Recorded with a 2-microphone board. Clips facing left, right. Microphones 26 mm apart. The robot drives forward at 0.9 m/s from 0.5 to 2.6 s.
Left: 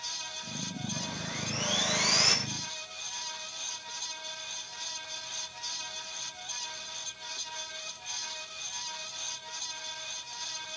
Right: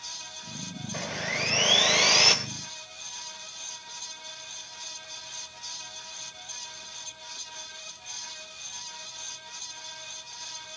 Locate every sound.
0.9 s sawing: 75° right (ahead or behind), 1.2 m; by 2.4 s 50° right (ahead or behind), 1.6 m